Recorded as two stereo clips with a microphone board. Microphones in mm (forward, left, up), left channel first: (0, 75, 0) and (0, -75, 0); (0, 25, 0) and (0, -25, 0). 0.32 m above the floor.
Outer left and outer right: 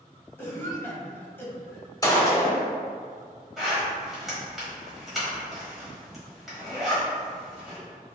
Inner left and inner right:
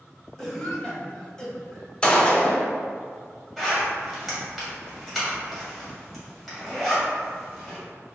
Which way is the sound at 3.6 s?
Centre (ahead or behind).